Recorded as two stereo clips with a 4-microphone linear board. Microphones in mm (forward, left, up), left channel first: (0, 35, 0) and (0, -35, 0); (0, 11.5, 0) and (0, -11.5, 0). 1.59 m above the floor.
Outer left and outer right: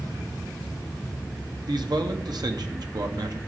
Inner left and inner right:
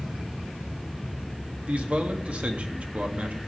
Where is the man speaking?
65° right (ahead or behind), 1.2 m.